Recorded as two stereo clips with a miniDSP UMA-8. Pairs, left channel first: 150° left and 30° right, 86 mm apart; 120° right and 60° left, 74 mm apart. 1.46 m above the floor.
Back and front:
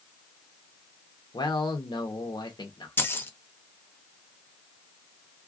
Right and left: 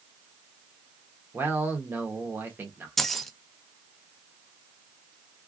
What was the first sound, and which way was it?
A man speaking, 120° left.